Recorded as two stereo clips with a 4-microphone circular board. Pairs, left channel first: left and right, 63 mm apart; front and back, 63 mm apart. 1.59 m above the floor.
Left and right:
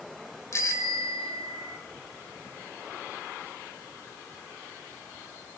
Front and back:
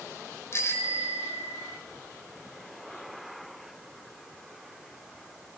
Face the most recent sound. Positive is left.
turn(degrees=50)